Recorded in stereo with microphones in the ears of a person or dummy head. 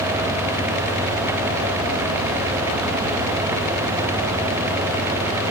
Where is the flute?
I don't hear a flute.